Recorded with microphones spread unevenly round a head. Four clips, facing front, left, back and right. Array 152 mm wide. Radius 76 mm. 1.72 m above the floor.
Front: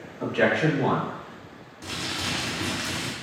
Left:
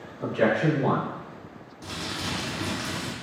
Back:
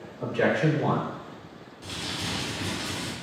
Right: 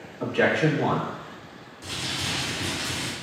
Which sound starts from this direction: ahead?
Crumpling, at 1.8 s.